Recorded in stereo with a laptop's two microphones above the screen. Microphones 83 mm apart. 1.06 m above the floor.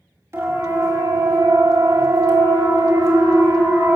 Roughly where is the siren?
Right.